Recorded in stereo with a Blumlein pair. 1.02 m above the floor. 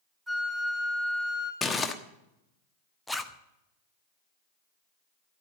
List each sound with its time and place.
0.3 s a flute: 10° right, 5 m
1.6 s crumpling: 15° left, 1.2 m
3.1 s a zipper: 5° left, 0.9 m